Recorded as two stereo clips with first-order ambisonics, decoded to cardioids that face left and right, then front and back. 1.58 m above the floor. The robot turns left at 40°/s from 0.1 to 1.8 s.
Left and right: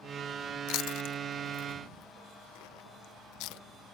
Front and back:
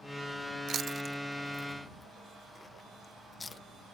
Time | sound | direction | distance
0.7 | chewing | 125° left | ?